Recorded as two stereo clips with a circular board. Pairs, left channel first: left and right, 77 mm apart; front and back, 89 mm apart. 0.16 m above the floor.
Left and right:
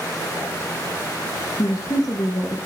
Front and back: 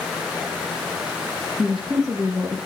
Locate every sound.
1.6 s a woman speaking: 85° left, 2.5 m